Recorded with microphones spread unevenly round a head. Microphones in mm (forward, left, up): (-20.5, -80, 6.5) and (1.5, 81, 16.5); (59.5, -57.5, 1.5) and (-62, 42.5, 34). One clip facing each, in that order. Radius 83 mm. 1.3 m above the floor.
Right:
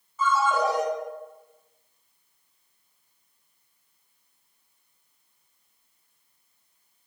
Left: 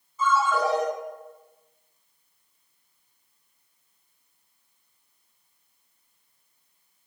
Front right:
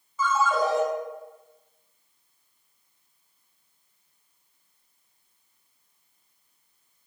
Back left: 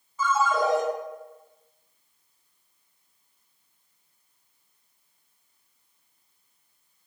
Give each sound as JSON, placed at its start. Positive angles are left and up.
{"t": 0.2, "sound": "a ringtone", "azimuth_deg": -55, "distance_m": 1.8}